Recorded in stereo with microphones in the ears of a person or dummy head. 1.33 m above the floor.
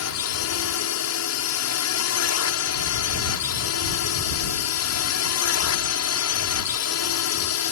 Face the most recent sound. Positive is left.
turn(degrees=70)  # may be behind; listen again after turning